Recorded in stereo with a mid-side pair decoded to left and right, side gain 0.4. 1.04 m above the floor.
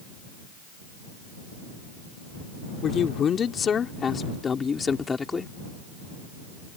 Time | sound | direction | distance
2.8 | a man speaking | 65° left | ?